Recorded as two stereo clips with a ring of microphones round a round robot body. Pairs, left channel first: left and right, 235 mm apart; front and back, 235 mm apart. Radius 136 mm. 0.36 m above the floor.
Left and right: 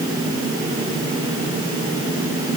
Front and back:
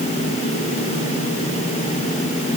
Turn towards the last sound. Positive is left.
No sound to turn to.